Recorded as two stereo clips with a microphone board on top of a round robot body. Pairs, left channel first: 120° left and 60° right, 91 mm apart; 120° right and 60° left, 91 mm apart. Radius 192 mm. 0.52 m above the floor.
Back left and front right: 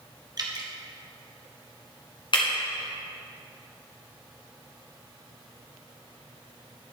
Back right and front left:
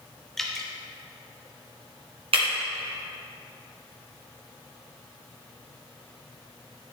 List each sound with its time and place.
0.4 s dripping: 35° right, 1.3 m
2.3 s breaking glass: 80° left, 1.5 m